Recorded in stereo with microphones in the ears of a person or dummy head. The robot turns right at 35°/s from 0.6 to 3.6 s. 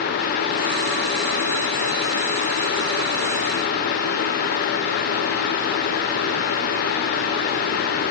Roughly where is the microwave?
I don't hear a microwave.